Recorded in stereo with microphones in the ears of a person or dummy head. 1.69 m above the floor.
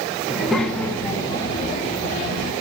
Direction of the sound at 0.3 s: 5° right (ahead or behind).